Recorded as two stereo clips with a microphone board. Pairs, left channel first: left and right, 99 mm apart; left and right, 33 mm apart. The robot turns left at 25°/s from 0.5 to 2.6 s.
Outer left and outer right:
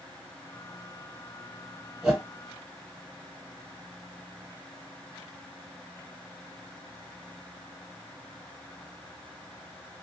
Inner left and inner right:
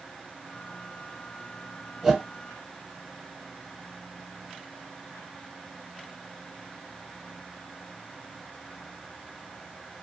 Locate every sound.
2.0 s a whoosh: 5° right (ahead or behind), 1.5 m; by 2.2 s centre (ahead or behind), 1.5 m